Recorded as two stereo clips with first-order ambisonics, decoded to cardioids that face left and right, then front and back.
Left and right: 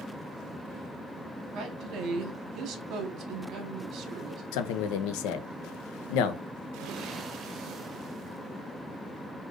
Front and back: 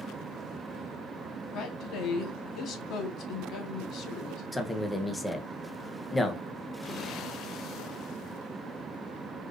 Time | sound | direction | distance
1.5 | a woman speaking | 45° right | 1.1 m
4.5 | a man speaking | 85° left | 0.6 m